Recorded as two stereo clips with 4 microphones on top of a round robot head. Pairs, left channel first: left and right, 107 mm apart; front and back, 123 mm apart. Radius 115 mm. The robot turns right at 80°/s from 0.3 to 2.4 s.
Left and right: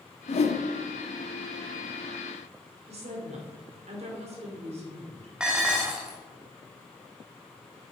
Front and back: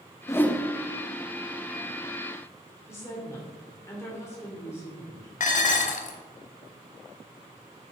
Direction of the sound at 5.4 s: 5° right.